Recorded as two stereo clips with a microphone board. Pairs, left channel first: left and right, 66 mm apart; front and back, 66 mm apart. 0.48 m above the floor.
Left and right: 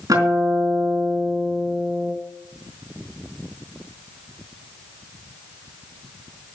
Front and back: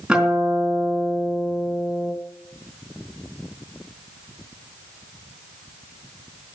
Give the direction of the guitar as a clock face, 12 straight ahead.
3 o'clock.